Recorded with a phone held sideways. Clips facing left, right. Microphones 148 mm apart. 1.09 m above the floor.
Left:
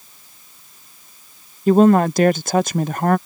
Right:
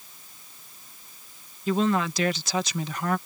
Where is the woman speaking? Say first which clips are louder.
Left 12 dB; 50° left (ahead or behind).